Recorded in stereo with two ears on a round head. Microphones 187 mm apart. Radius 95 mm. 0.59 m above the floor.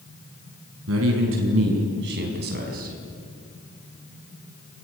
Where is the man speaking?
70° right (ahead or behind), 5.5 m; by 3.0 s 40° right (ahead or behind), 5 m.